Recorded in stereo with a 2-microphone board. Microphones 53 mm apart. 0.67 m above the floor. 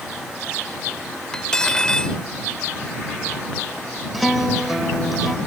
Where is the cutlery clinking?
10° left (ahead or behind).